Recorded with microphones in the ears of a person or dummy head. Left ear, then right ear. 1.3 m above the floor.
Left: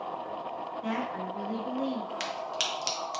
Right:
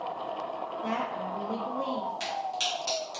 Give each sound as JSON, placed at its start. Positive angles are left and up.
{"t": 0.8, "sound": "a woman speaking", "side_deg": 30, "distance_m": 1.4}
{"t": 2.2, "sound": "a crack", "side_deg": 65, "distance_m": 0.7}